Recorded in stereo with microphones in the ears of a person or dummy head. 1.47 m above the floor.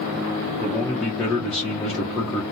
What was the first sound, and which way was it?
A man speaking, 5° left (ahead or behind).